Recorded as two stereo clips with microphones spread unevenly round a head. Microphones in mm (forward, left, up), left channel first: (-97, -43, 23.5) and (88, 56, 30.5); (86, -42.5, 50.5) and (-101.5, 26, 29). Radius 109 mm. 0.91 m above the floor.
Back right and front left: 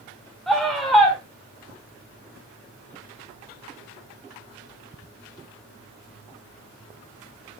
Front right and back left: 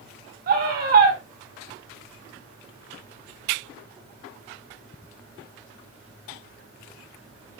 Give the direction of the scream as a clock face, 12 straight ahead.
8 o'clock.